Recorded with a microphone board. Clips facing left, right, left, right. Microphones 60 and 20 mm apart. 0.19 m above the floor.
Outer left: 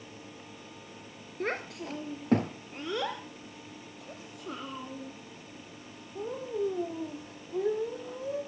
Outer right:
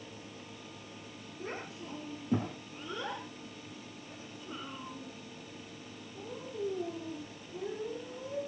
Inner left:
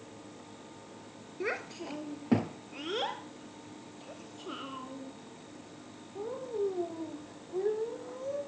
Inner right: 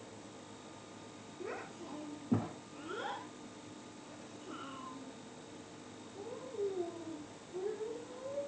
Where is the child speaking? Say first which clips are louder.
Outer left 8 dB, inner left 9 dB; 65° left (ahead or behind), 2.5 m; by 8.4 s 70° left (ahead or behind), 7.5 m.